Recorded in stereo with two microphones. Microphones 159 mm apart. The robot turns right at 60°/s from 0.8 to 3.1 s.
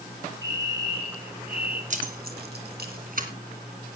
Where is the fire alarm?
155° right, 4.5 m; by 1.8 s 95° right, 4.5 m.